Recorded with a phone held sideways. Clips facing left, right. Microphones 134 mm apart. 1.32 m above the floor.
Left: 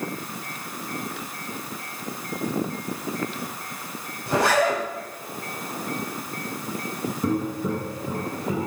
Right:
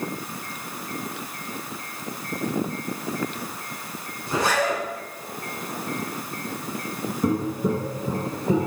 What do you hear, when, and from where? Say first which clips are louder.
4.3 s a zipper: left 3 dB; 65° left (ahead or behind), 3.5 m
7.2 s footsteps: right 2 dB; 5° right (ahead or behind), 1.3 m; by 8.7 s 25° right (ahead or behind), 1.8 m